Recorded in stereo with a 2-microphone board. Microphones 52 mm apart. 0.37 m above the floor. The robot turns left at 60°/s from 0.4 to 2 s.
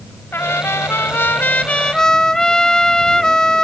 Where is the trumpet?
110° left; by 3.6 s 15° left.